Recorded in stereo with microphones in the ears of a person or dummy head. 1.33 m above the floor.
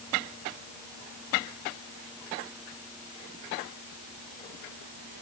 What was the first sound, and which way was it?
Only background noise.